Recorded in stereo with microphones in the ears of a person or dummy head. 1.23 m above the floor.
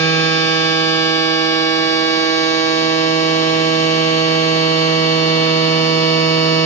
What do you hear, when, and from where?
0.0 s a machine running: 15° left (ahead or behind), 1.6 m